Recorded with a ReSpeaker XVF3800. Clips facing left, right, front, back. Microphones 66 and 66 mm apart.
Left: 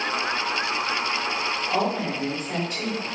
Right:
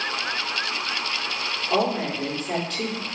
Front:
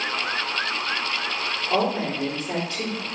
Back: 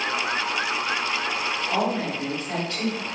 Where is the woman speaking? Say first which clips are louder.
Right 3 dB, front 3 dB; 65° right, 1.4 m.